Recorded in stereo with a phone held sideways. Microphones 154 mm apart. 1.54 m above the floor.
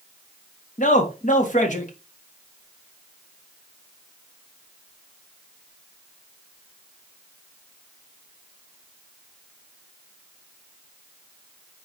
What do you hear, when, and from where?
0.8 s a man speaking: 55° left (ahead or behind), 1.8 m